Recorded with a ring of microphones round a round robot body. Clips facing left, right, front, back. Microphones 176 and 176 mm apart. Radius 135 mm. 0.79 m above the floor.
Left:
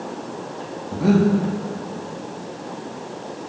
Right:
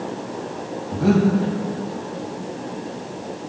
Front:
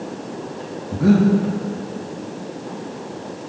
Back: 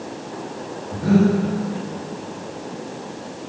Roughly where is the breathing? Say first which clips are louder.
Even, front 2 dB; ahead.